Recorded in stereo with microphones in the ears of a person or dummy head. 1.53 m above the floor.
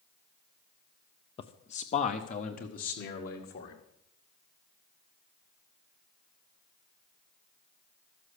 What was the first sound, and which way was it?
A man speaking, 25° left (ahead or behind).